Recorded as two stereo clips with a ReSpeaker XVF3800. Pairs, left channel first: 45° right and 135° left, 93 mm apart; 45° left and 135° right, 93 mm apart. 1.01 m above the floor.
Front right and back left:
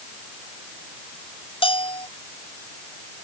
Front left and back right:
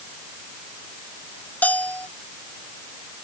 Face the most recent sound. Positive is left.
turn(degrees=-30)